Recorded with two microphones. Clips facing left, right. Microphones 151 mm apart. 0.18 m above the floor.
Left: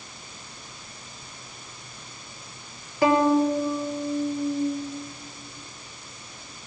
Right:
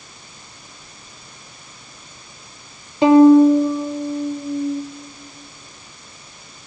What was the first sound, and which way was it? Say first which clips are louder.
A violin: right 11 dB; 20° right (ahead or behind).